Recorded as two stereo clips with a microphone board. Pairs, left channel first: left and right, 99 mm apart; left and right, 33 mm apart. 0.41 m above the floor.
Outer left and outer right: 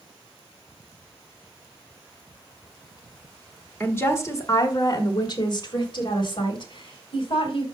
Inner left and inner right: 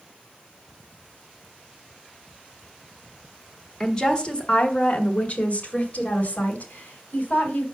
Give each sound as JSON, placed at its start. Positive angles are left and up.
{"t": 3.8, "sound": "a woman speaking", "side_deg": 20, "distance_m": 1.4}